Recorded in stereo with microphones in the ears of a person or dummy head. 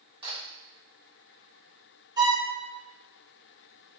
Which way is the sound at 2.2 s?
10° right (ahead or behind).